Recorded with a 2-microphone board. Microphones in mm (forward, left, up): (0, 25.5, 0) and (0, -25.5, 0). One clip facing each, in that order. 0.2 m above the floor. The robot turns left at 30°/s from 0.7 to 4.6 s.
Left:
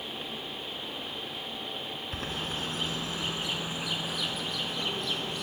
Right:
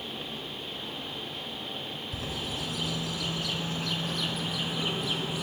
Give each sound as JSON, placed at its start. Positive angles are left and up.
{"t": 2.1, "sound": "a bird", "side_deg": 55, "distance_m": 1.4}